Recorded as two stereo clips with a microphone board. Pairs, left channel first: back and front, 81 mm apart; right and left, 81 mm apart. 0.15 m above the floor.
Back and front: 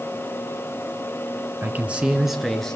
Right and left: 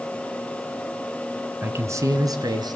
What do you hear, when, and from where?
1.6 s a man speaking: 50° left, 1.6 m; by 2.8 s 95° left, 2.5 m